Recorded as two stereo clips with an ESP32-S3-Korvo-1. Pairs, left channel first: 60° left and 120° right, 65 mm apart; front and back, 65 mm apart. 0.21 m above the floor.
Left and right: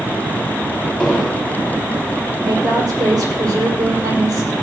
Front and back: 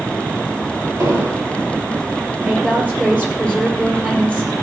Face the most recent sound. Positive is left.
turn(degrees=-115)